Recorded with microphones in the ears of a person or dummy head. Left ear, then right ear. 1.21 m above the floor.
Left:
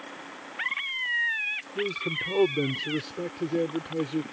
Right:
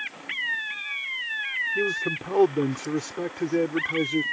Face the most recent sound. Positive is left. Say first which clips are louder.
# right 3 dB
turn(degrees=-50)  # may be behind; listen again after turning